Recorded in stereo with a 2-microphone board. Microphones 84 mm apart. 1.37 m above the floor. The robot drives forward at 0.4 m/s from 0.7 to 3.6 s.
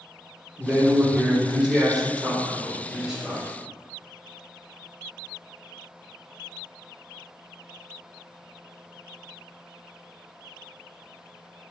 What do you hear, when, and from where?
0.6 s a man speaking: 10° right (ahead or behind), 1.1 m; by 3.4 s 5° right (ahead or behind), 2 m